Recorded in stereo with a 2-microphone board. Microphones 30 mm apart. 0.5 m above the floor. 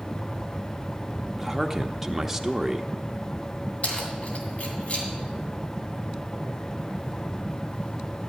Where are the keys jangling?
45° left (ahead or behind), 2.5 m.